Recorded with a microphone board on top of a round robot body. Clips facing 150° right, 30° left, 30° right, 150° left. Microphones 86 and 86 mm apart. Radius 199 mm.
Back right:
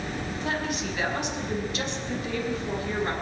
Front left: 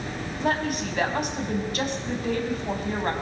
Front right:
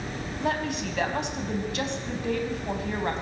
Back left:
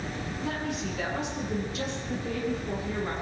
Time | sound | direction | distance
0.4 | a woman speaking | 15° right | 4.5 m